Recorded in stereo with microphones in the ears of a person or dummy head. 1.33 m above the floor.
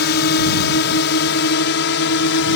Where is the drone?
60° left (ahead or behind); by 2.6 s 65° left (ahead or behind).